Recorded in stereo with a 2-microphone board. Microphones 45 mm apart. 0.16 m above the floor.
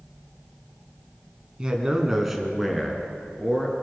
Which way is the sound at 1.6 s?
20° right (ahead or behind).